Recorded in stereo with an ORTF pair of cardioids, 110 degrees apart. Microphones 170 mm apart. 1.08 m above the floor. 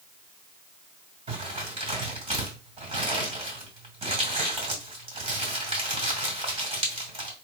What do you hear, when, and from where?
1.3 s crumpling: 35° right, 2 m